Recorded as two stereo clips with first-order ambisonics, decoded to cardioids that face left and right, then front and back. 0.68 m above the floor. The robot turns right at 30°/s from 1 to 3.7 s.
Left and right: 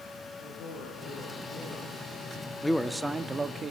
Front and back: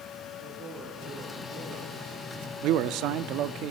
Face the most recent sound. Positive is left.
turn(degrees=-155)